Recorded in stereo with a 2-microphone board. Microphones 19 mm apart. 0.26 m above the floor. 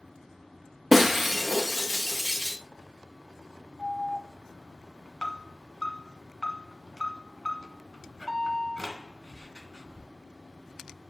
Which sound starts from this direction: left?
An alarm, at 3.8 s.